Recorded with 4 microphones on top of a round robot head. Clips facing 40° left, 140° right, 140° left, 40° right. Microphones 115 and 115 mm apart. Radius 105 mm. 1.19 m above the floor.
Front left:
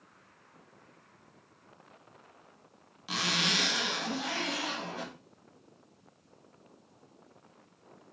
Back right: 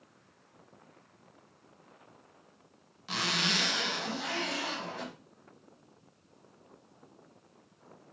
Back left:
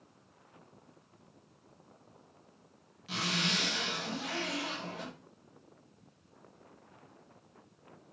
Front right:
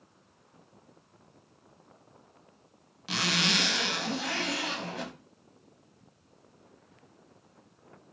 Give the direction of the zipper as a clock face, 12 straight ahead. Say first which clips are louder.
Even, front right 4 dB; 1 o'clock.